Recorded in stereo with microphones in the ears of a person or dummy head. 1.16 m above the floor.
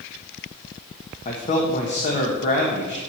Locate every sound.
1.2 s a man speaking: 35° left (ahead or behind), 1.5 m